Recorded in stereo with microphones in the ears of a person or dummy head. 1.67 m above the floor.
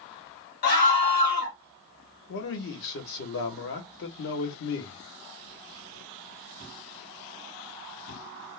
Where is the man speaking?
60° left (ahead or behind), 1.0 m.